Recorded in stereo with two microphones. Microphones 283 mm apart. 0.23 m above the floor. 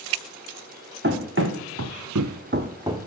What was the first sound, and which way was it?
Running footsteps, 40° right (ahead or behind).